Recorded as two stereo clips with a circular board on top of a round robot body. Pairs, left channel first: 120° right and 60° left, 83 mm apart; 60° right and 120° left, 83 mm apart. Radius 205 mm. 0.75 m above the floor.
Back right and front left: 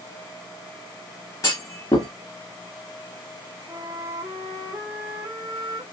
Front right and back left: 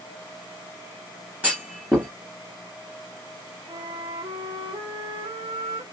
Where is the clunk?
170° right, 0.6 m.